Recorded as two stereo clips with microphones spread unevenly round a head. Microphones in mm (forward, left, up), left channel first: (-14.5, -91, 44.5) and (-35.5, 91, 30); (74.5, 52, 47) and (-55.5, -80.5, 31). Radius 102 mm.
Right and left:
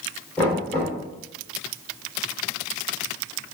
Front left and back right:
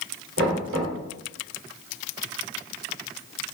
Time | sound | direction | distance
0.4 | knocking | 160° right | 3.5 m